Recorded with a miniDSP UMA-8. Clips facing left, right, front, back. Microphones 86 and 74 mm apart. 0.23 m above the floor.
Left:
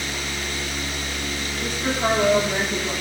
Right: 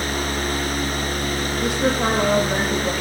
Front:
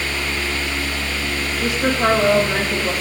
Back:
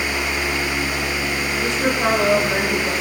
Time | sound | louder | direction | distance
1.6 | a woman speaking | right 3 dB, front 2 dB | 85° right | 7.5 m